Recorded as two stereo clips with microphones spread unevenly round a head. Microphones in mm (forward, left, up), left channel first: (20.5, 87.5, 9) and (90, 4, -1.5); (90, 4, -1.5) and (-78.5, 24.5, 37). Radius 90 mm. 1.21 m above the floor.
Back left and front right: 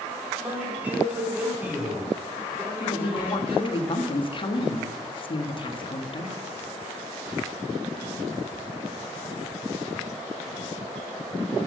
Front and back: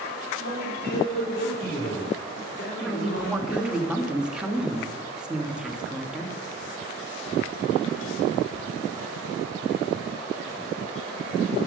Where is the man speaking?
25° left, 4 m.